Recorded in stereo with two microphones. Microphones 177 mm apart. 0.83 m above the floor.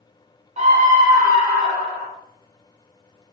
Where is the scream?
40° right (ahead or behind), 1.4 m; by 2.1 s 65° right (ahead or behind), 1.9 m.